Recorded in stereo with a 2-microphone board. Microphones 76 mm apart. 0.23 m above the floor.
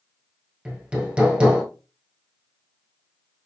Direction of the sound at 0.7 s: 15° right (ahead or behind).